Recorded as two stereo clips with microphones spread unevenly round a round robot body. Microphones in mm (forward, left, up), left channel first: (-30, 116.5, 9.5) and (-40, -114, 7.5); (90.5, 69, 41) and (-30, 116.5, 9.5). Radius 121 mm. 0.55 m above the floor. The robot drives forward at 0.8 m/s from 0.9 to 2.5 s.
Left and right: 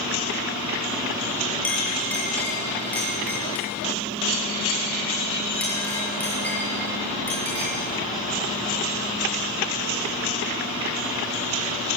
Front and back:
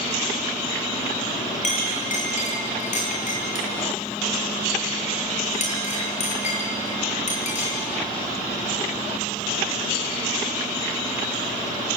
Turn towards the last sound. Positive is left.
turn(degrees=5)